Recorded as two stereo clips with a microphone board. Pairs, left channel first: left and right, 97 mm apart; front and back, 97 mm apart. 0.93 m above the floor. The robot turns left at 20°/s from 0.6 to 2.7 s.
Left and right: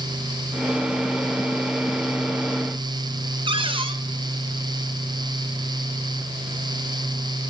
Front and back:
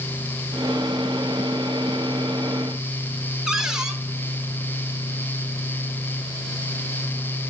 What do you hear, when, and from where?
3.5 s a cupboard door: 95° right, 0.6 m